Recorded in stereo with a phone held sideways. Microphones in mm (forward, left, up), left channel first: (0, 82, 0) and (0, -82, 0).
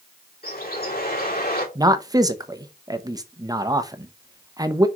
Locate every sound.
0.4 s a bird: 70° left (ahead or behind), 3 m
1.8 s a man speaking: 25° right (ahead or behind), 0.7 m